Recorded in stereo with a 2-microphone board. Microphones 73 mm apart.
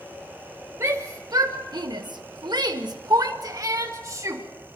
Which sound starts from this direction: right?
A shout, at 0.8 s.